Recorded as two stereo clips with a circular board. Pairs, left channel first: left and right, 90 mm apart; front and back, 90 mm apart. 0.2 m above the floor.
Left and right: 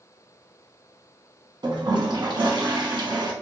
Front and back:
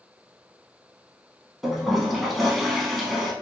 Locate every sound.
1.6 s a toilet flushing: 90° right, 0.6 m